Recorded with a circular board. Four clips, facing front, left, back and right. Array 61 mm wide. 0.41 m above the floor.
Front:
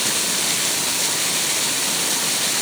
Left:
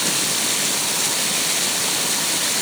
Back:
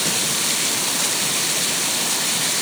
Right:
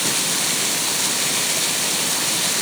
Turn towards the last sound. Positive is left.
No sound to turn to.